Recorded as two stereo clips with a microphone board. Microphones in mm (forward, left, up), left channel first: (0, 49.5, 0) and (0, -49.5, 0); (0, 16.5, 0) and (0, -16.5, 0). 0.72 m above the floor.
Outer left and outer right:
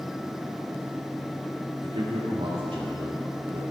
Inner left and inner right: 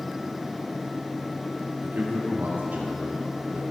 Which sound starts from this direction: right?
A man speaking, at 1.8 s.